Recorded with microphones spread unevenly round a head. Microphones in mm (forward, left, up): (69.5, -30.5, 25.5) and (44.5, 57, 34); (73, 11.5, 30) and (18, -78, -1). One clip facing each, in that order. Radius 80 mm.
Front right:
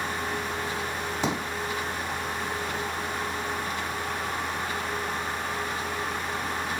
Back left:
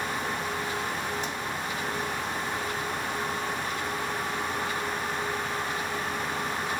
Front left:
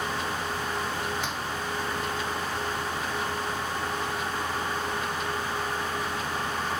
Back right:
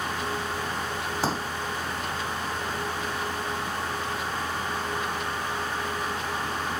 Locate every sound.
1.2 s a pop: 65° right